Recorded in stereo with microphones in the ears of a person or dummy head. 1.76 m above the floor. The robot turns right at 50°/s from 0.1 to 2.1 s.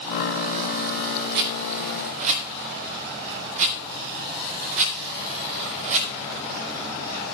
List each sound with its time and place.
1.4 s a rattle: 60° right (ahead or behind), 2.0 m; by 6.1 s 45° right (ahead or behind), 2.0 m